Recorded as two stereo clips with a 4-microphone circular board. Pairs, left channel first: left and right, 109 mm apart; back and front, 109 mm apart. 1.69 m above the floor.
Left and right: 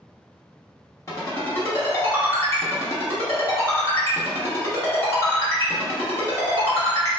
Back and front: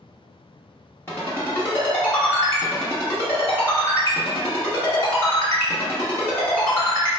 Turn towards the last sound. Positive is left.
turn(degrees=130)